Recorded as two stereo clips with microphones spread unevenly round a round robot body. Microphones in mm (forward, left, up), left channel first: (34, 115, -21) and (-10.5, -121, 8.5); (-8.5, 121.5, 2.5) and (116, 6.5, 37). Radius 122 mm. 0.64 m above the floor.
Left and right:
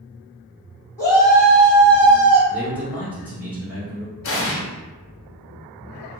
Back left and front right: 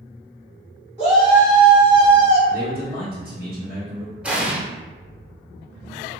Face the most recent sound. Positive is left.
turn(degrees=40)